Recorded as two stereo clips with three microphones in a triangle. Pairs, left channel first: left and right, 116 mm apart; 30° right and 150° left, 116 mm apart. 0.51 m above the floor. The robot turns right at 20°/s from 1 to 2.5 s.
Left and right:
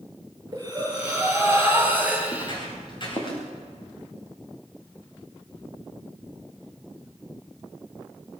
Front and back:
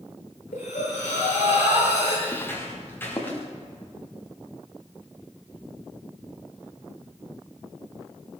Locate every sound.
0.5 s breathing: 35° right, 10 m; by 2.2 s 10° right, 10 m
2.3 s footsteps: 35° left, 7 m; by 3.4 s 40° left, 6.5 m